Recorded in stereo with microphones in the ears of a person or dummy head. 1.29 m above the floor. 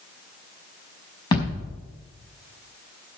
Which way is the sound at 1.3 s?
25° left (ahead or behind).